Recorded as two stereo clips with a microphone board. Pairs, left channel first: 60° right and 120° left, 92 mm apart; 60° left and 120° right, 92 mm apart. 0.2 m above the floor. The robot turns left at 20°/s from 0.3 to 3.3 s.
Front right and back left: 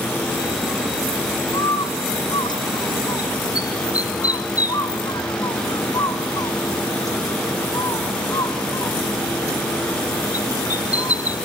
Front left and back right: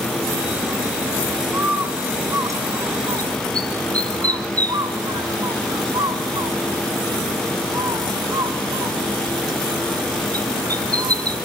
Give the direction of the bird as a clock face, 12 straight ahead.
2 o'clock.